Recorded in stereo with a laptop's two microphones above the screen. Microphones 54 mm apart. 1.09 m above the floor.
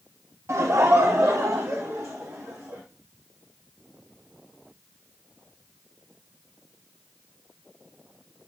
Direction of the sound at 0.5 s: 55° right (ahead or behind).